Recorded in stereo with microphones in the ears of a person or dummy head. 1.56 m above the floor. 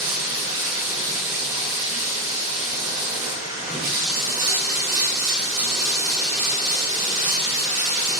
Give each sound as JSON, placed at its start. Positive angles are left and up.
{"t": 0.0, "sound": "running water", "side_deg": -45, "distance_m": 2.0}